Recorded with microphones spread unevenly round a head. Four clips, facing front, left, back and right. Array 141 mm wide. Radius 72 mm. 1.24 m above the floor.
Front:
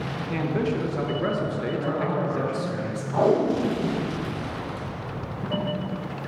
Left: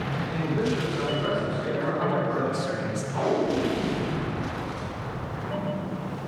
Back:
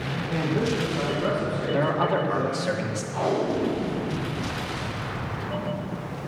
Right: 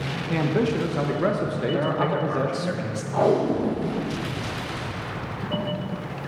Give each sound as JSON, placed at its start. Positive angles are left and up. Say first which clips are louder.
{"t": 0.3, "sound": "a man speaking", "louder": "right 5 dB, even", "azimuth_deg": -80, "distance_m": 1.3}
{"t": 1.7, "sound": "a man speaking", "louder": "right 2 dB, back 5 dB", "azimuth_deg": -150, "distance_m": 1.9}
{"t": 3.1, "sound": "tape being pulled", "louder": "right 5 dB, front 4 dB", "azimuth_deg": -40, "distance_m": 1.4}